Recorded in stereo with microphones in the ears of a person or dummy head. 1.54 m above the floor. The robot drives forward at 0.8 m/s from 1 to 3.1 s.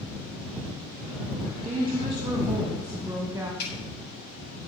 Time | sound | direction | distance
1.6 | a woman speaking | 25° right (ahead or behind) | 1.1 m
3.6 | a snare drum | 60° left (ahead or behind) | 6 m